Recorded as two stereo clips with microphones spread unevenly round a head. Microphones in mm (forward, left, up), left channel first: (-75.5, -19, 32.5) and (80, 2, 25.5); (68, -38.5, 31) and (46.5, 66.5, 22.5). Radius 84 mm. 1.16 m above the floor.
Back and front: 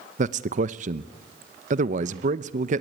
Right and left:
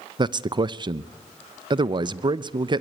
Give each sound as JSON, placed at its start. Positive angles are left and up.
{"t": 0.2, "sound": "a man speaking", "azimuth_deg": 55, "distance_m": 0.8}